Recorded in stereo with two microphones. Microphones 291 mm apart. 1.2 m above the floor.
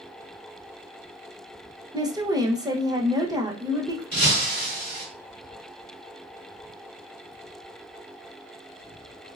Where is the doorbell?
No doorbell in this recording.